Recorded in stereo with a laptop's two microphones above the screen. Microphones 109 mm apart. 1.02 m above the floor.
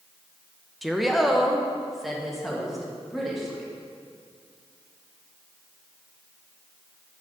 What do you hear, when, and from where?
0.8 s a woman speaking: centre (ahead or behind), 0.6 m